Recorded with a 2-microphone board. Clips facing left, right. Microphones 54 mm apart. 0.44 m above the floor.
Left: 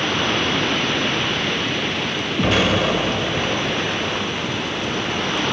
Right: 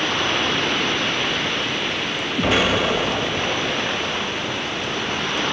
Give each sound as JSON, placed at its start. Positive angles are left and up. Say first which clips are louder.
{"t": 2.4, "sound": "an explosion", "louder": "left 1 dB", "side_deg": -5, "distance_m": 0.5}